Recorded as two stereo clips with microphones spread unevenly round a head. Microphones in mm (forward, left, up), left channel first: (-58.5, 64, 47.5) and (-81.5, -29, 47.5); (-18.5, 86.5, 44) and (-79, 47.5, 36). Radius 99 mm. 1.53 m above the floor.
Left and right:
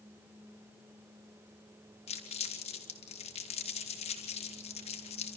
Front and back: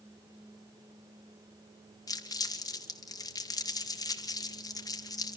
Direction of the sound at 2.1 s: 65° left.